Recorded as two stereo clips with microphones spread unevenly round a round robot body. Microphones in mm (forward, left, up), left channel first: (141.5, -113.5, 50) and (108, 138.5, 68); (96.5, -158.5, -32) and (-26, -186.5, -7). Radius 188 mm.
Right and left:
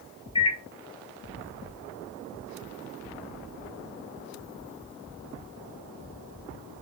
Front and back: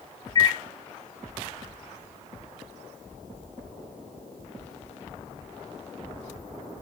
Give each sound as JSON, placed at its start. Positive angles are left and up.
{"t": 0.3, "sound": "a microwave", "azimuth_deg": -25, "distance_m": 1.0}